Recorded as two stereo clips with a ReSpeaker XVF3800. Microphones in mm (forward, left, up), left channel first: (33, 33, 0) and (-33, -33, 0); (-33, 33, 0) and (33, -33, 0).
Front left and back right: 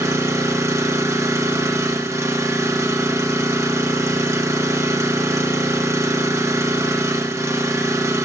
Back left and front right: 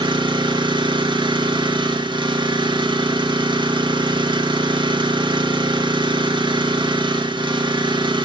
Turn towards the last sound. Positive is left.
turn(degrees=-75)